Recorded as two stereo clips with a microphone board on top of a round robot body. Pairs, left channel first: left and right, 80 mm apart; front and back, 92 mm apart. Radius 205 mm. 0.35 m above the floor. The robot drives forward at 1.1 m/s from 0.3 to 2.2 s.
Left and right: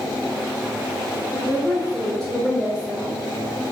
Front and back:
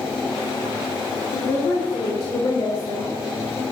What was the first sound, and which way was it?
A woman speaking, 5° left.